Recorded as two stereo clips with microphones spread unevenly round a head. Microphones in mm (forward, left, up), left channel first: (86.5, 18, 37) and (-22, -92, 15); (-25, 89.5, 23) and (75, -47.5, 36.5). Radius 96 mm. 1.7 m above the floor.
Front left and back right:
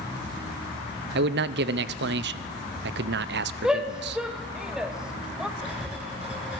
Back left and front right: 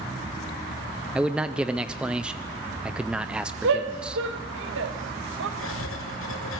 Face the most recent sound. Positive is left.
turn(degrees=140)